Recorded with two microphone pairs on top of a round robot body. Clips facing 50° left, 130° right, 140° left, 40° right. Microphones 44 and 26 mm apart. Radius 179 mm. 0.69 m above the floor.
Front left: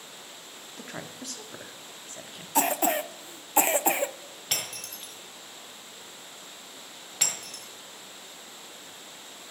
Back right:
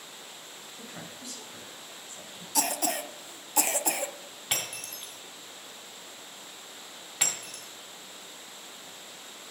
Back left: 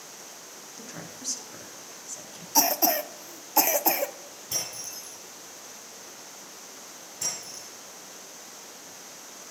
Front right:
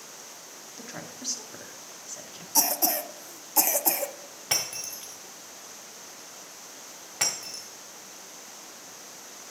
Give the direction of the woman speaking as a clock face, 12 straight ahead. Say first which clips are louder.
Front left 5 dB, front right 2 dB; 11 o'clock.